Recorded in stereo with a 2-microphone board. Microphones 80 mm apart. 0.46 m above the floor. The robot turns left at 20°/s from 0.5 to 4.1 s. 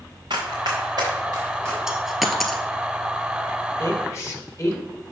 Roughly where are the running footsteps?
Right.